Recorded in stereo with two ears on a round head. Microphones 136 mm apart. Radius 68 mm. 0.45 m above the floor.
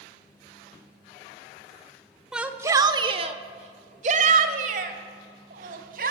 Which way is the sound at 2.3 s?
5° right (ahead or behind).